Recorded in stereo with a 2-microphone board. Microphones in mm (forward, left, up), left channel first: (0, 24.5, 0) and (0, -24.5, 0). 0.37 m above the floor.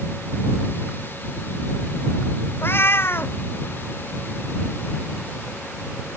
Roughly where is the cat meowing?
Left.